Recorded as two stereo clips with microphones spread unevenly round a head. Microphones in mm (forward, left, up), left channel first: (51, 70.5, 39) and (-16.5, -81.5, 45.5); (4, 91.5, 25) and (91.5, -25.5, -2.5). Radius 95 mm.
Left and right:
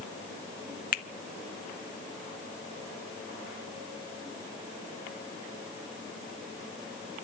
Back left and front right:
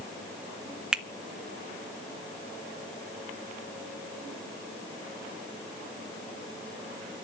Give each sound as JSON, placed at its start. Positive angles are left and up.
{"t": 0.9, "sound": "a finger snap", "azimuth_deg": 40, "distance_m": 0.9}